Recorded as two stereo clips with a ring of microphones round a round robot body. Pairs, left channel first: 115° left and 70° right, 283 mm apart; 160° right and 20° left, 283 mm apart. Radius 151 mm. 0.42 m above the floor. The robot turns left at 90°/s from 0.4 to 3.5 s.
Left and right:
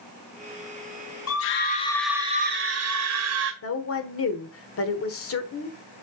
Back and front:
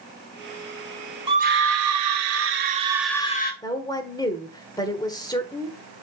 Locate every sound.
1.3 s a scream: 95° left, 1.8 m; by 3.5 s 110° right, 1.8 m
3.6 s a woman speaking: 130° left, 1.4 m